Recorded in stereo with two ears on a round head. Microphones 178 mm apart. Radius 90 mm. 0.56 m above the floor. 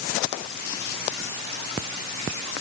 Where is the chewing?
No chewing in this recording.